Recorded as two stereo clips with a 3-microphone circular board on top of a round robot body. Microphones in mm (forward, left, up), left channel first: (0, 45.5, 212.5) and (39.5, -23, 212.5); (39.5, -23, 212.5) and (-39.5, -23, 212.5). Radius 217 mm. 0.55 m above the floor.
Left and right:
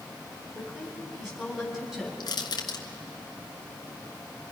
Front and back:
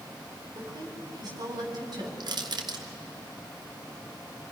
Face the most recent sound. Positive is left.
turn(degrees=150)